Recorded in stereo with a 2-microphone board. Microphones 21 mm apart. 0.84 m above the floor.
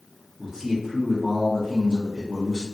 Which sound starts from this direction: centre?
A man speaking, at 0.4 s.